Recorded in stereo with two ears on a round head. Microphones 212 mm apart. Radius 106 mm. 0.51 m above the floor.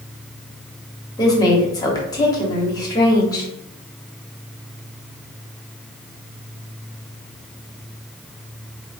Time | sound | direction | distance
1.2 | a woman speaking | 15° left (ahead or behind) | 1.0 m